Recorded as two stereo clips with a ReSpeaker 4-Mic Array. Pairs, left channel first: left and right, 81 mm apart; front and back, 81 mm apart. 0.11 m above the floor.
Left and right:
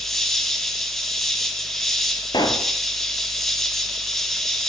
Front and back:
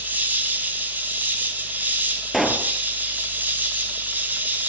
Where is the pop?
90° left, 1.4 m.